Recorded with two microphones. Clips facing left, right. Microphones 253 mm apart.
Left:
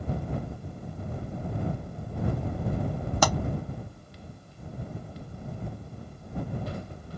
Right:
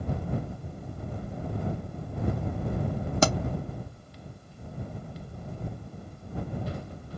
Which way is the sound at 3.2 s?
25° right (ahead or behind).